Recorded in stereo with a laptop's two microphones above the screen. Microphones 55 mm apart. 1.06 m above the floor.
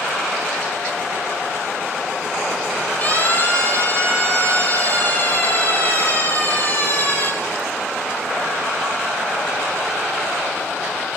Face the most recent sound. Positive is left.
turn(degrees=35)  # may be behind; listen again after turning